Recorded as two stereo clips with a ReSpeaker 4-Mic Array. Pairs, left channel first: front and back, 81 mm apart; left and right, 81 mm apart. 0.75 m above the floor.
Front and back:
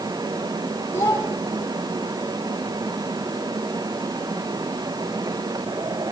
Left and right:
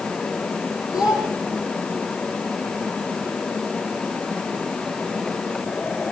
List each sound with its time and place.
0.9 s a child speaking: 60° left, 9 m